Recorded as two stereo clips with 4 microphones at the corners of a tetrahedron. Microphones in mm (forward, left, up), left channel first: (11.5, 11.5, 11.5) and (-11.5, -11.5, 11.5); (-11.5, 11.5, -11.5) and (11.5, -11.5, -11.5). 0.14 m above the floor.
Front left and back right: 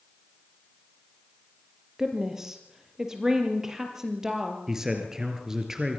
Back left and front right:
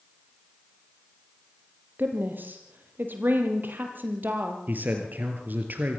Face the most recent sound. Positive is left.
turn(degrees=-65)